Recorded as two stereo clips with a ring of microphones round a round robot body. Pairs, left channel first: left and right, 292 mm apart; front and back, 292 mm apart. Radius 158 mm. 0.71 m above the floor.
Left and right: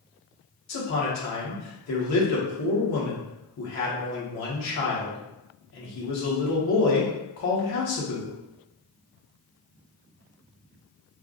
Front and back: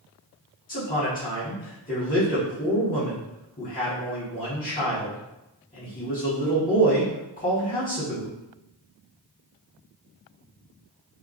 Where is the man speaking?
65° left, 1.4 m.